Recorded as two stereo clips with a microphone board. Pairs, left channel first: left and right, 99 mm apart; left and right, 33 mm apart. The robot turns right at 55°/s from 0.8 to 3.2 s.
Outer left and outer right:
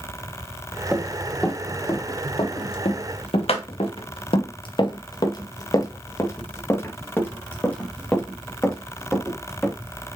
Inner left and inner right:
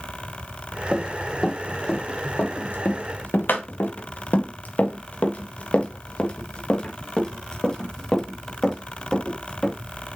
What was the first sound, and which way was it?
Running footsteps, 15° right (ahead or behind).